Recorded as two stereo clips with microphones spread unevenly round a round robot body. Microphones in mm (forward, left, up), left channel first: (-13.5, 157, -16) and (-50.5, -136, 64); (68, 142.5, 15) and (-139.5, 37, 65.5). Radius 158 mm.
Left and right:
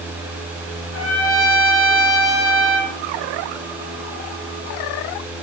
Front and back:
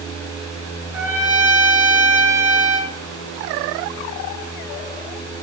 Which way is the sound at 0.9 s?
125° left.